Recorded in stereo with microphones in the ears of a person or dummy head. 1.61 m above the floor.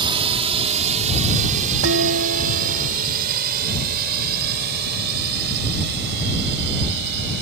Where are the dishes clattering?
70° right (ahead or behind).